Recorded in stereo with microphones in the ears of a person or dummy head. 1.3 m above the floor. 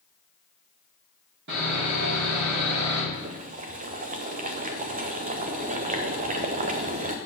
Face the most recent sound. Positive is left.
turn(degrees=-35)  # may be behind; listen again after turning